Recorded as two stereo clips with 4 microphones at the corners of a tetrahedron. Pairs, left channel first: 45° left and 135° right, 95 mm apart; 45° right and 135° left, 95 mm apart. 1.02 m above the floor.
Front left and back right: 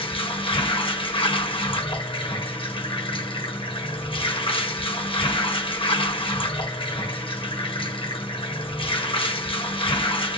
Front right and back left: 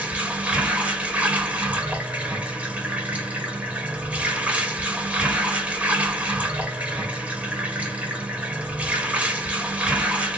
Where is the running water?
60° left, 1.0 m.